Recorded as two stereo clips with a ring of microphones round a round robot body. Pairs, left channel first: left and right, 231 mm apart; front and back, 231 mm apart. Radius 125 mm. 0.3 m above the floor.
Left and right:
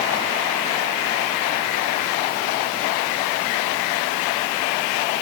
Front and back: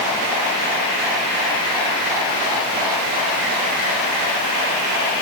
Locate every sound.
Only background noise.